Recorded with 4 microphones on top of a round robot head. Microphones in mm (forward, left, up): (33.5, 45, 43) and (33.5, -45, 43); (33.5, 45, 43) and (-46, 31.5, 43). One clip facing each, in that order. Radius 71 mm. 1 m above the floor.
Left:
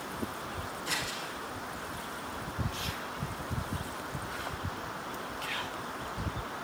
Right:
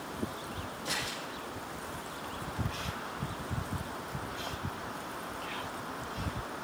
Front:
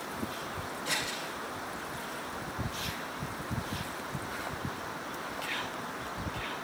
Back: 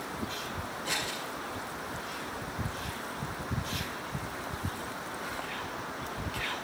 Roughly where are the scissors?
Right.